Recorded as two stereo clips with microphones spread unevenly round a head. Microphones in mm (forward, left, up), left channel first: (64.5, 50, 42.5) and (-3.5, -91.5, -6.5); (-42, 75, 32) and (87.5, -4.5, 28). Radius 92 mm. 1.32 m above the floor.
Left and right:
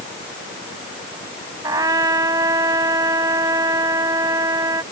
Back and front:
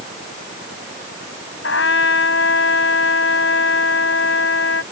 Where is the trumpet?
165° left.